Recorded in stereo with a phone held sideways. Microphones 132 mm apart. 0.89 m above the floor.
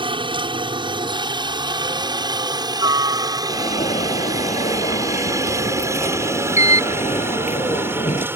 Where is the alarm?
60° left (ahead or behind).